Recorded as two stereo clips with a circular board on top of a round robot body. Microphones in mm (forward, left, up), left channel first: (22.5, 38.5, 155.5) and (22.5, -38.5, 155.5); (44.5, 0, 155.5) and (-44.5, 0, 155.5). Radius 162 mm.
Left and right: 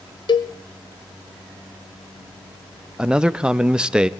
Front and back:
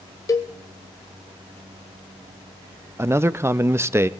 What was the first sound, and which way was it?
A cowbell, 55° left.